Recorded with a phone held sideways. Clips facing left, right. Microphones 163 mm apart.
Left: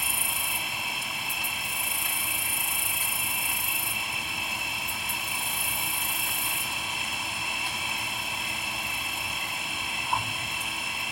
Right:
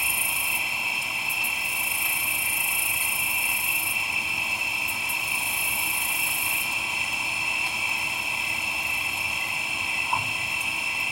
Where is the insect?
Centre (ahead or behind), 1.4 m.